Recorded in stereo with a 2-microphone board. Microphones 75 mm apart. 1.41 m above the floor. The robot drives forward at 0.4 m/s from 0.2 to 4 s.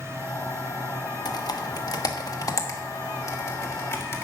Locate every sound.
1.2 s typing on a keyboard: 55° left (ahead or behind), 1.1 m; by 4.2 s 35° left (ahead or behind), 1.6 m